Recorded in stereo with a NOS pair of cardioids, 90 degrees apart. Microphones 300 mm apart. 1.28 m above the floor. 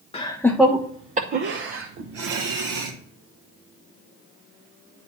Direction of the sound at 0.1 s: 20° left.